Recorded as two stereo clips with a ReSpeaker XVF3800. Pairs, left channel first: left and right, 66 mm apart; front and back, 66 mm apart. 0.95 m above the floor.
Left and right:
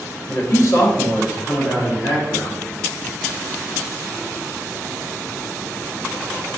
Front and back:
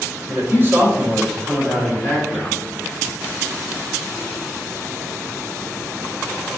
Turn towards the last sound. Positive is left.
turn(degrees=70)